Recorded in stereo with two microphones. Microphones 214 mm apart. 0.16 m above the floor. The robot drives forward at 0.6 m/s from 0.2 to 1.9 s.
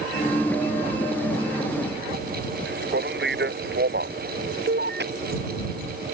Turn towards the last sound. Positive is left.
turn(degrees=-50)  # may be behind; listen again after turning